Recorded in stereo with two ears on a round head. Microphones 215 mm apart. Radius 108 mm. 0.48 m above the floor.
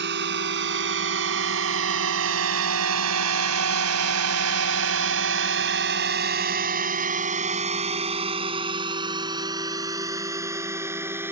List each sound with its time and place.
0.0 s a drone: 50° right (ahead or behind); by 11.3 s 10° right (ahead or behind)